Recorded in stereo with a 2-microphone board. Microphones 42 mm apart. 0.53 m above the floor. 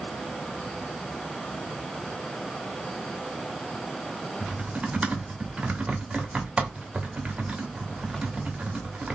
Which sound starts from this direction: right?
Typing on a keyboard, at 4.4 s.